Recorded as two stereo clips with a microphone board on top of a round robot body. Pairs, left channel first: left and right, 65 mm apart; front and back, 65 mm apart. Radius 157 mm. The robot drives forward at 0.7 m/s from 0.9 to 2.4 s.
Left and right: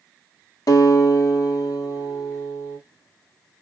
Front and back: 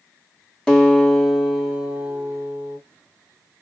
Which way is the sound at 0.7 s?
80° left.